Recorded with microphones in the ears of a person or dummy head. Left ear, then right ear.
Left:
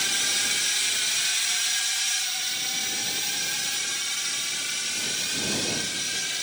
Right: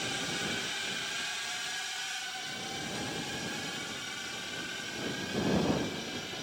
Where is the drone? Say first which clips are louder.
Left 9 dB; 60° left (ahead or behind); by 6.5 s 70° left (ahead or behind).